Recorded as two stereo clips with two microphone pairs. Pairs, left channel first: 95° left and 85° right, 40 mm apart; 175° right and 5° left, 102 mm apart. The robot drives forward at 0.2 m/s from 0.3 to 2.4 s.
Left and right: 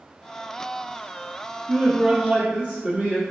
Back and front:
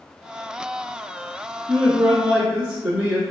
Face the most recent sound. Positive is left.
turn(degrees=-90)